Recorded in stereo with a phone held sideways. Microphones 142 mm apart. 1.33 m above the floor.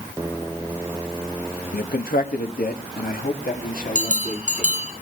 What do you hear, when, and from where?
1.7 s a man speaking: 90° left, 1.7 m; by 4.8 s 70° left (ahead or behind), 3.5 m
4.0 s a bell: 60° right (ahead or behind), 6 m